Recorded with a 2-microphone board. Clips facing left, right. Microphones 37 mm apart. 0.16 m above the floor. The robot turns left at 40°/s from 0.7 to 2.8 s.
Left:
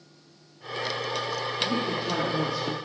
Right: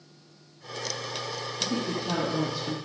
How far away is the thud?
No thud in this recording.